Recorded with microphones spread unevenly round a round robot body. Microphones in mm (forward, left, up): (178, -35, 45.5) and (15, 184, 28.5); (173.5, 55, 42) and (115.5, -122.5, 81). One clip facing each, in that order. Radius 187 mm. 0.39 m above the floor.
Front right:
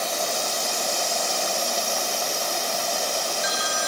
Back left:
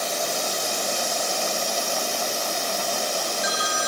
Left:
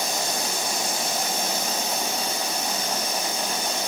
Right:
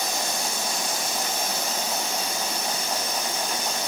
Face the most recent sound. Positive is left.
No sound to turn to.